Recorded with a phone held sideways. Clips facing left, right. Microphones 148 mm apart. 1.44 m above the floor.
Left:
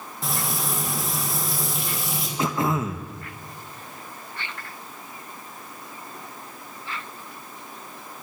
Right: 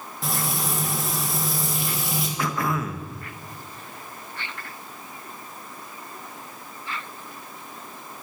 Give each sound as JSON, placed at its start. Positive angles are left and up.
{"t": 0.2, "sound": "frying", "side_deg": 0, "distance_m": 3.0}
{"t": 2.4, "sound": "throat clearing", "side_deg": 25, "distance_m": 0.9}